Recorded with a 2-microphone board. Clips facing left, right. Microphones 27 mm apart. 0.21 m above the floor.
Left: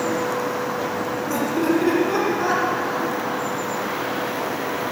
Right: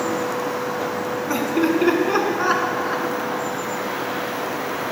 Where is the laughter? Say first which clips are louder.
Right 1 dB; 35° right (ahead or behind), 2.5 m.